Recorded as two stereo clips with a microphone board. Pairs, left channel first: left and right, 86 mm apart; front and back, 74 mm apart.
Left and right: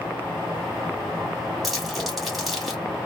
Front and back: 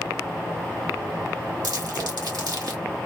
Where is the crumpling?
Straight behind, 2 m.